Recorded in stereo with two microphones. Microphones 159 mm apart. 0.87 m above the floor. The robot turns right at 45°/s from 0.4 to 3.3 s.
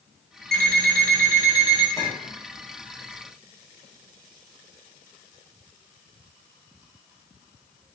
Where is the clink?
25° left (ahead or behind), 0.9 m; by 2.3 s 40° left (ahead or behind), 0.9 m.